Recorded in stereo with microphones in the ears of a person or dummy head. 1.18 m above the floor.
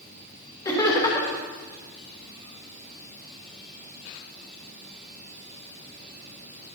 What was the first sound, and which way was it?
Laughter, 20° left (ahead or behind).